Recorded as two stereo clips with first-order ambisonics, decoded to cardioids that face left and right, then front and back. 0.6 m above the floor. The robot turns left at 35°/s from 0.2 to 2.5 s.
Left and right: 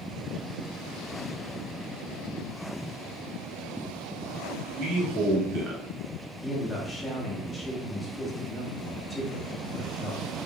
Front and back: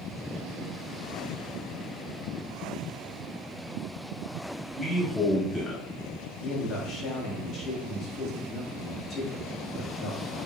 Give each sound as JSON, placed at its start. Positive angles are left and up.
{"t": 4.8, "sound": "a man speaking", "azimuth_deg": -85, "distance_m": 0.8}
{"t": 6.4, "sound": "a man speaking", "azimuth_deg": 10, "distance_m": 0.7}